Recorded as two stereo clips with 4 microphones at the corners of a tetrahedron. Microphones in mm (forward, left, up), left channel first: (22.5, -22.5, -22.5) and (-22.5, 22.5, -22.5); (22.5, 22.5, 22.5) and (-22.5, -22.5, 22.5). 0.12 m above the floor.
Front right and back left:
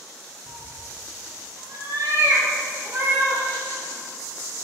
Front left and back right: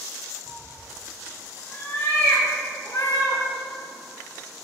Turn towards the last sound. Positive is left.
turn(degrees=80)